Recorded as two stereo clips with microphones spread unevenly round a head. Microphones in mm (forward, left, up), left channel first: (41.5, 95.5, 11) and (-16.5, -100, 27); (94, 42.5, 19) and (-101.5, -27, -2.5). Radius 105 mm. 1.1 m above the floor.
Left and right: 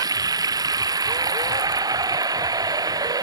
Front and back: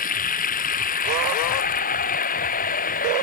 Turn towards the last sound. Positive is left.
turn(degrees=-35)